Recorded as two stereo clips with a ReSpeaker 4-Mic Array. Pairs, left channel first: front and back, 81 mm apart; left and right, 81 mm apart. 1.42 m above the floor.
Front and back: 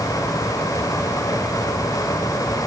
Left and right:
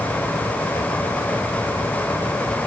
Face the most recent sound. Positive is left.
No sound to turn to.